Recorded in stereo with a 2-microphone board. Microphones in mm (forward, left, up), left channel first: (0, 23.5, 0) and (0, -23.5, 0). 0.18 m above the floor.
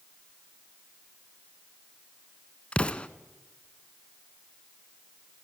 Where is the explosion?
25° left (ahead or behind), 0.8 m.